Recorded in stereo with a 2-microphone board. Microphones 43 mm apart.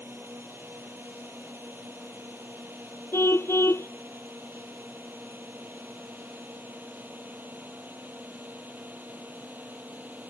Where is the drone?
60° right (ahead or behind); by 10.3 s 40° right (ahead or behind).